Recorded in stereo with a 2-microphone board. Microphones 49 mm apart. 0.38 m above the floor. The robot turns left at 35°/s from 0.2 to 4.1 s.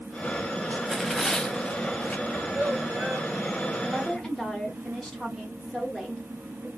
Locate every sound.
0.8 s tearing paper: 170° right, 0.7 m; by 2.2 s 140° left, 0.7 m
2.3 s a child speaking: 70° right, 1.5 m; by 3.3 s 110° right, 1.5 m
3.8 s a woman speaking: 5° left (ahead or behind), 1.6 m; by 6.7 s 10° left (ahead or behind), 1.6 m